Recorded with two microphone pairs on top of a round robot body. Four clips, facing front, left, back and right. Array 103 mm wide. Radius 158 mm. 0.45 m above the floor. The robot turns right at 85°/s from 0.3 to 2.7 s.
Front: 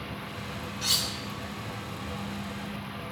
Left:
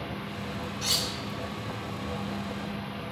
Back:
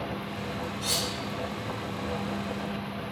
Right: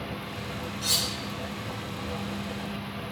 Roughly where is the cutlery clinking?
Ahead left.